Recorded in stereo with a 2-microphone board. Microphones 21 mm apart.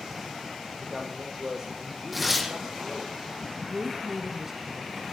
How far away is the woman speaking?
About 2 m.